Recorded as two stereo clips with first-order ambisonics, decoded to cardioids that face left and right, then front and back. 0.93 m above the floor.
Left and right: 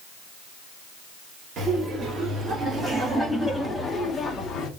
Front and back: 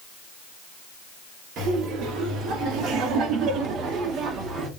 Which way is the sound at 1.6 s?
140° right.